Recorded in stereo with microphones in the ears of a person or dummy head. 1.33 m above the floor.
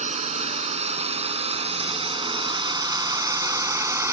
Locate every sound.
0.0 s a drone: 40° right (ahead or behind); by 4.1 s 15° right (ahead or behind)